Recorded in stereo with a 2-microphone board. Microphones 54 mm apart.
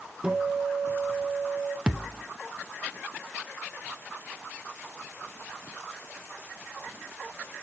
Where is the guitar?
15° right (ahead or behind), 2.0 m.